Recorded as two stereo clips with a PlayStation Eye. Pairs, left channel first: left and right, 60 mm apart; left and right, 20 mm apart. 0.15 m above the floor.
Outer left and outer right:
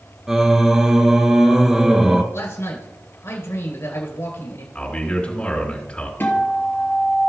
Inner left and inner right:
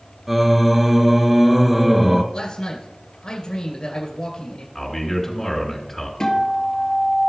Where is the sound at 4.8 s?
20° left (ahead or behind), 2.5 m.